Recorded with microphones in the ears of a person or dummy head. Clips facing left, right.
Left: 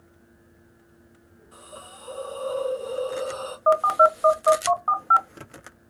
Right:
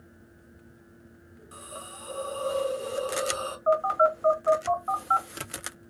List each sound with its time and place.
1.5 s a hiss: 60° right (ahead or behind), 1.7 m
3.7 s a phone buzzing: 60° left (ahead or behind), 0.8 m